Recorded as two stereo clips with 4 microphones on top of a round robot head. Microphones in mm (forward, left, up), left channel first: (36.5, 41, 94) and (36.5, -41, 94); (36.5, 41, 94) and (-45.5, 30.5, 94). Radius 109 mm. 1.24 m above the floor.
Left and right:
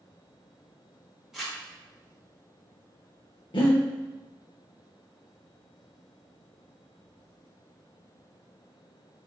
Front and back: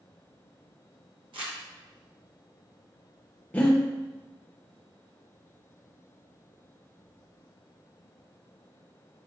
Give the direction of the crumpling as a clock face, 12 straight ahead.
6 o'clock.